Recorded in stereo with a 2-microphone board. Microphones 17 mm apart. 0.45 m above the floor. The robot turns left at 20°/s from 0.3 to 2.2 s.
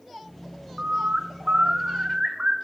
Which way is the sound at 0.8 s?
55° right (ahead or behind).